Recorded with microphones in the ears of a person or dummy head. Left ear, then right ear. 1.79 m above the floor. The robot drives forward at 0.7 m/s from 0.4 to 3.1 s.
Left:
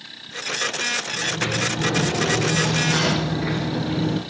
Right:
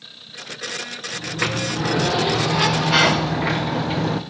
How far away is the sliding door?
About 1.3 m.